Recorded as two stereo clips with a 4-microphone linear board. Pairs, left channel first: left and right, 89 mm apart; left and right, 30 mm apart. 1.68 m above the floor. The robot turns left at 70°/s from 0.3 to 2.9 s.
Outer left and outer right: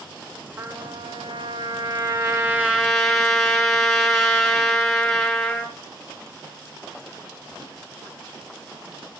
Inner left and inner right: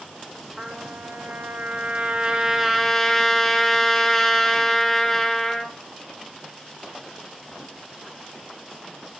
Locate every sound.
0.6 s a trumpet: 20° right, 3.5 m; by 5.8 s 175° left, 3.5 m